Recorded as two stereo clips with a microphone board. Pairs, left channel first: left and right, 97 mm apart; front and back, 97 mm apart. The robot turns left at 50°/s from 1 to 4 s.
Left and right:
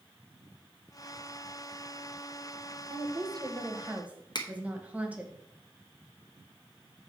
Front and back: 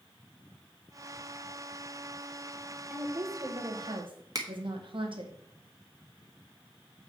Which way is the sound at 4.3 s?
130° left.